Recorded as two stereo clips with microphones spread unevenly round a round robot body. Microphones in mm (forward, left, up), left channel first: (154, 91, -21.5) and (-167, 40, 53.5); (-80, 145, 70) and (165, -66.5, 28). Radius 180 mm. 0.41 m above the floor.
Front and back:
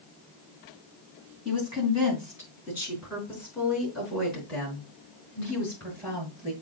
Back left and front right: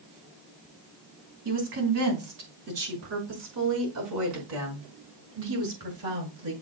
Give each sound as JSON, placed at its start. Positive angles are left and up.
{"t": 1.4, "sound": "a woman speaking", "azimuth_deg": -90, "distance_m": 3.5}